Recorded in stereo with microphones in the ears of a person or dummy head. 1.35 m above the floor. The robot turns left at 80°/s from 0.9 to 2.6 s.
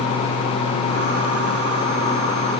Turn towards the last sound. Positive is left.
No sound to turn to.